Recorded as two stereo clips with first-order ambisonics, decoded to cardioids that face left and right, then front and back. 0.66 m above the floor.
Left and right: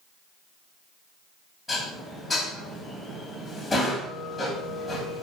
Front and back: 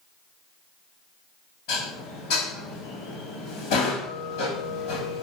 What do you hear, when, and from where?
1.7 s dishes clattering: 5° left, 2.5 m